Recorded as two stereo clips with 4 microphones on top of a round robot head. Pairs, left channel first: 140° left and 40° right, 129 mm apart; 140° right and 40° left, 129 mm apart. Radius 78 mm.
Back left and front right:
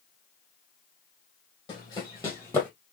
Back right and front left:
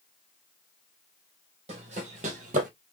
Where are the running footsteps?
80° left, 2.5 m; by 2.7 s 60° left, 1.9 m.